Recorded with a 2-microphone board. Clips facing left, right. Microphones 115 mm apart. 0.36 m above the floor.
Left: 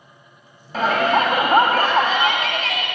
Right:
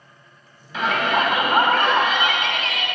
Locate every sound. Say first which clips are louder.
0.7 s a shout: left 3 dB; 40° left (ahead or behind), 2.5 m